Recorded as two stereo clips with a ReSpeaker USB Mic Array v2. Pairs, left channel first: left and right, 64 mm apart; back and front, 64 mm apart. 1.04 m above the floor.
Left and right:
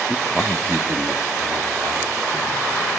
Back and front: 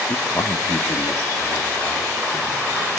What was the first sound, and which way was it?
A man speaking, 160° left.